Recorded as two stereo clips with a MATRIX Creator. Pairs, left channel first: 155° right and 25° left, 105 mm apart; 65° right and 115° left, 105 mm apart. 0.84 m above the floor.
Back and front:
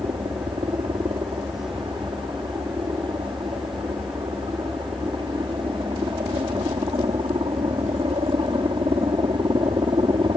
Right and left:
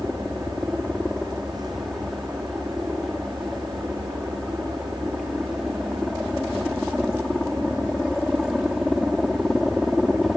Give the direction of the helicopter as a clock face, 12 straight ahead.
11 o'clock.